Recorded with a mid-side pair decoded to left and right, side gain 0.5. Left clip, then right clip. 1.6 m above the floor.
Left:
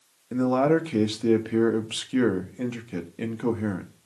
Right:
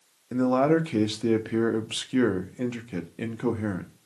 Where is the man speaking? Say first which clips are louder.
Even; 5° right, 0.7 m.